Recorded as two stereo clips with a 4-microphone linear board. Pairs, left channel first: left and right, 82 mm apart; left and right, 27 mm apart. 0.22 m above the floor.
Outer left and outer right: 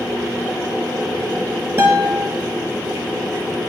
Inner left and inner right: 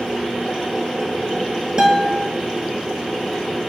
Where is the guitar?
25° right (ahead or behind), 0.6 m.